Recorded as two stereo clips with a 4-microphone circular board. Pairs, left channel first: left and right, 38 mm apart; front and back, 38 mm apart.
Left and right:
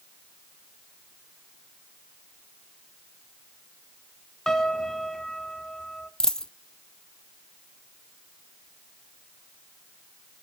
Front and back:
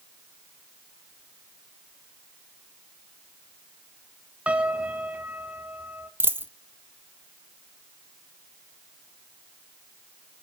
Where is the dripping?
No dripping in this recording.